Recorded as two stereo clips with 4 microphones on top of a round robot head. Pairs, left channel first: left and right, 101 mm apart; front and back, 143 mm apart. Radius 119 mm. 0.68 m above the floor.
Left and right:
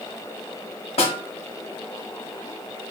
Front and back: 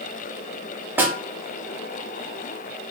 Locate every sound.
1.0 s a snare drum: 100° left, 1.0 m